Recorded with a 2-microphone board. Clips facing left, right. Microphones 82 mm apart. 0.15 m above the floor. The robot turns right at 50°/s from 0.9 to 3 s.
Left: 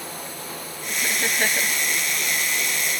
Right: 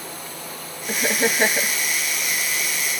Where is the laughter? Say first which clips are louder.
Right 5 dB; 60° right; by 1.8 s 15° right.